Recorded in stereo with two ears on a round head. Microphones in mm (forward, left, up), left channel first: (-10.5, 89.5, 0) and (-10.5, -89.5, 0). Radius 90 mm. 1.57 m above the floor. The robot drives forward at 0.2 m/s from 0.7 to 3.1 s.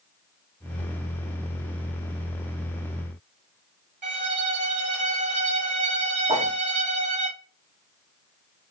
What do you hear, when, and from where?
4.0 s a violin: 40° right (ahead or behind), 1.8 m
6.3 s a whoosh: 20° right (ahead or behind), 0.9 m